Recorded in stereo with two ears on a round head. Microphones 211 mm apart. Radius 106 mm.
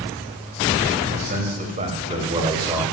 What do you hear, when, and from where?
1.1 s a man speaking: 45° right (ahead or behind), 3 m; by 2.8 s 20° right (ahead or behind), 3 m